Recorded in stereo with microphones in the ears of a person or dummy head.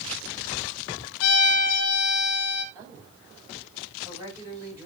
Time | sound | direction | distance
1.2 | a violin | 70° left (ahead or behind) | 1.1 m
2.8 | a woman speaking | 20° right (ahead or behind) | 8 m